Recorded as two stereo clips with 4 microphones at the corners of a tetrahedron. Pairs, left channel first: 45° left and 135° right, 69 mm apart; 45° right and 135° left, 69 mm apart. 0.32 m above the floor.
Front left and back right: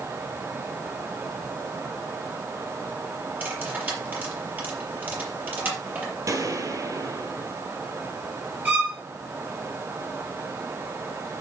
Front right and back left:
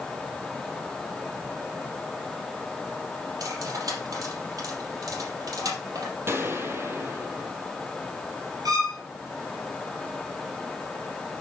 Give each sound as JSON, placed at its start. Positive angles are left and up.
{"t": 3.4, "sound": "cutlery clinking", "azimuth_deg": 165, "distance_m": 5.0}
{"t": 6.3, "sound": "a gunshot", "azimuth_deg": -170, "distance_m": 1.9}
{"t": 8.7, "sound": "a violin", "azimuth_deg": 160, "distance_m": 3.5}